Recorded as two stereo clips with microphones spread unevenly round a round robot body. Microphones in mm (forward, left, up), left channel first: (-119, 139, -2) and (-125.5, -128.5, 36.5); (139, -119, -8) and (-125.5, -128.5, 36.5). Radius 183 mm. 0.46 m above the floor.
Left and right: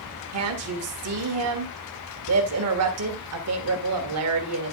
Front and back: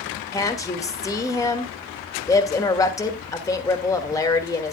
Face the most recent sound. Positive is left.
turn(degrees=-65)